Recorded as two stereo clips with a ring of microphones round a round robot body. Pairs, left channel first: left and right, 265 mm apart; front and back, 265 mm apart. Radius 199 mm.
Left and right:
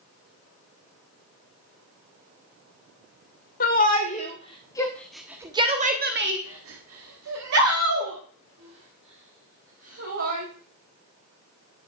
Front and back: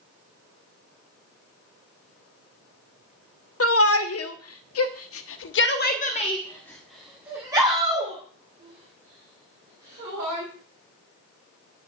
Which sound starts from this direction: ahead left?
A shout, at 3.6 s.